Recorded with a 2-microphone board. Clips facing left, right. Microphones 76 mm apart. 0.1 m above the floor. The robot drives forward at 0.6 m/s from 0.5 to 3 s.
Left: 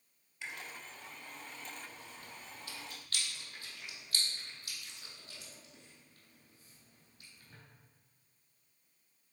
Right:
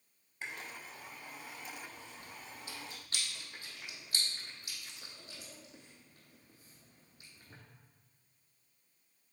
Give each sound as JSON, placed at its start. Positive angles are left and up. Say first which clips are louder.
{"t": 0.4, "sound": "chewing", "louder": "right 1 dB", "side_deg": -45, "distance_m": 1.3}